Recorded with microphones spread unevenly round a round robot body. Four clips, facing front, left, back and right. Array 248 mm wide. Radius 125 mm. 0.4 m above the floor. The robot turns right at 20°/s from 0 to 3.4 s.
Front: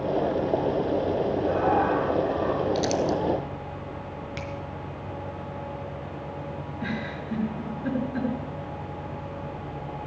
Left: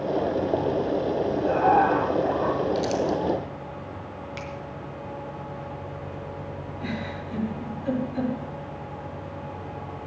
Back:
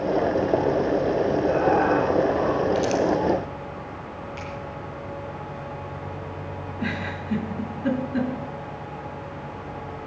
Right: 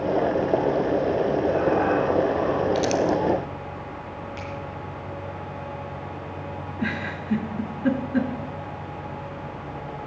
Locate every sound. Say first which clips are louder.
1.4 s laughter: left 6 dB, back 2 dB; 95° left, 3.5 m; by 2.6 s 120° left, 3.5 m
2.8 s crumpling: right 3 dB, back 3 dB; 45° right, 1.1 m; by 3.2 s 35° right, 1.1 m
4.4 s a finger snap: right 1 dB, even; 35° left, 4.5 m
6.8 s a giggle: right 4 dB, back 3 dB; 105° right, 3.5 m